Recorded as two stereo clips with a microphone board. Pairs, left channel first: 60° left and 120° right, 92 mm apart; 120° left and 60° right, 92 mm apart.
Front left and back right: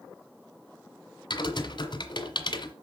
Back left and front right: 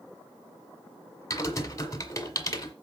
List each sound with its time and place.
1.3 s typing on a keyboard: 70° left, 1.7 m